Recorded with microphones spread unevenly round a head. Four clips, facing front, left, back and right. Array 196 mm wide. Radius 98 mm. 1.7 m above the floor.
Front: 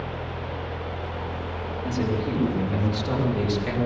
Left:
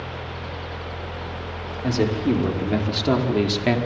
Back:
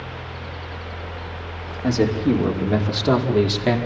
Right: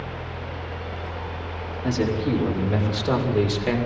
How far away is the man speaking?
About 5.5 m.